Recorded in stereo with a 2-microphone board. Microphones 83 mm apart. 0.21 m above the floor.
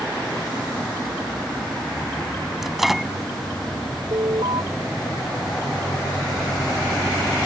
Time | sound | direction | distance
2.6 | a microwave | 5° right (ahead or behind) | ?
4.1 | an alarm | 80° right | ?